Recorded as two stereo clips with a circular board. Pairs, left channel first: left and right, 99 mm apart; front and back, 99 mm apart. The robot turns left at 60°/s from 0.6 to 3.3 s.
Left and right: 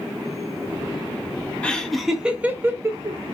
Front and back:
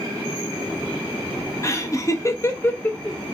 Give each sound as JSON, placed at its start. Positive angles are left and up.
{"t": 1.6, "sound": "laughter", "azimuth_deg": 20, "distance_m": 0.5}